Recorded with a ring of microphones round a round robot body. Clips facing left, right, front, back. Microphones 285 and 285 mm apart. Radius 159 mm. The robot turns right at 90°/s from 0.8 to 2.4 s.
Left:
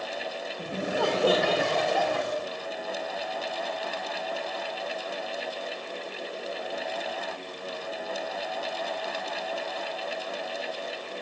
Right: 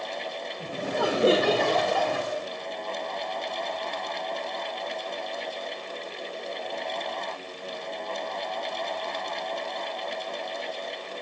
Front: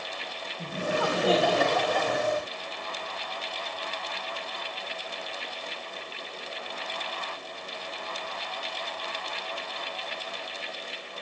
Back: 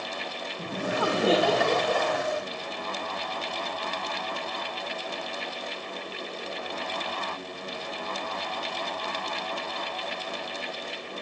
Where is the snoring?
I don't hear snoring.